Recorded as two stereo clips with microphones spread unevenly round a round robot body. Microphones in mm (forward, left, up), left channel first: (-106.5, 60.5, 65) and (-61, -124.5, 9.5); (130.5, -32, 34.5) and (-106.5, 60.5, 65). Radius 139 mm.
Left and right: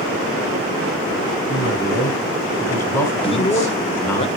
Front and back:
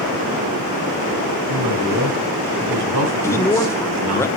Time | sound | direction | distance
1.5 | a woman speaking | straight behind | 8 m
3.2 | a man speaking | 40° left | 1.0 m